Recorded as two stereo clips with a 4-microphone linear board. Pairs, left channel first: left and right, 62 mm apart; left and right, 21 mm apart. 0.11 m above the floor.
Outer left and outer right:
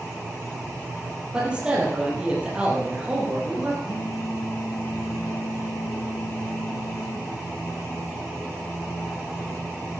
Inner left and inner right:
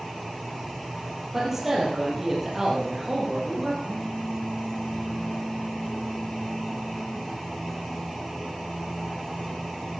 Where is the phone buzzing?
50° left (ahead or behind), 2 m.